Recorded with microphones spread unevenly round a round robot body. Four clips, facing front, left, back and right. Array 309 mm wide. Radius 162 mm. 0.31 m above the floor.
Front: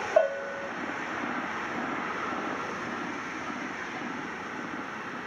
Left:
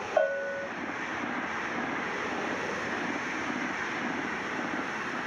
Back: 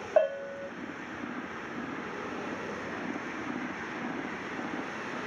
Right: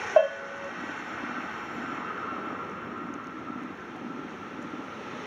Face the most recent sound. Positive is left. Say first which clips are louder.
# right 4 dB, front 1 dB
turn(degrees=-140)